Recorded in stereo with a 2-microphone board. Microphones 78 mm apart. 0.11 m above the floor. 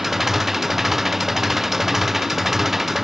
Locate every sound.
0.0 s an engine running: 5° right (ahead or behind)